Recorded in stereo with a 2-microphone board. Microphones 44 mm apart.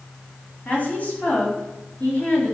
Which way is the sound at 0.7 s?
35° left (ahead or behind).